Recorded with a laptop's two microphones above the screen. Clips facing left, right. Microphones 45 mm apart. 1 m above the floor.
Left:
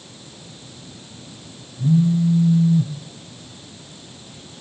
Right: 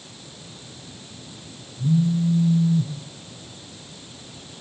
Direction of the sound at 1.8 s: 40° left (ahead or behind).